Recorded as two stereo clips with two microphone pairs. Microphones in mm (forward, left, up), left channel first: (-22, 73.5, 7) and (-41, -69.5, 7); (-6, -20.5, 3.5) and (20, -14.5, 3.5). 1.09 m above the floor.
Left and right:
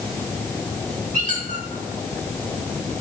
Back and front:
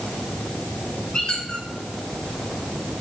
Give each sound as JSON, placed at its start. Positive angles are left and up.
{"t": 1.1, "sound": "a squeak", "azimuth_deg": -110, "distance_m": 2.0}